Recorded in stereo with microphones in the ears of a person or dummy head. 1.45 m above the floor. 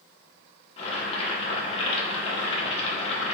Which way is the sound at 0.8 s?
35° left (ahead or behind).